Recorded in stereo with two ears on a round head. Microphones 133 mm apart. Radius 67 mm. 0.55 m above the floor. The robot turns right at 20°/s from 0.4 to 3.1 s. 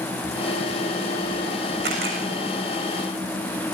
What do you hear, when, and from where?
1.8 s a camera shutter: 70° right (ahead or behind), 6.5 m; by 2.2 s 65° right (ahead or behind), 6.5 m